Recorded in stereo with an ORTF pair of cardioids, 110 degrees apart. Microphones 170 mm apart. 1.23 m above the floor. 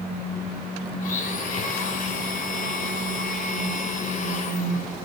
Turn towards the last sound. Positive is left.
turn(degrees=50)